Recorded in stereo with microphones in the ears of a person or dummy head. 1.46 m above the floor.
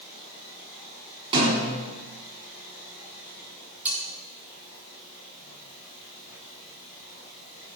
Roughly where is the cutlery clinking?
Centre.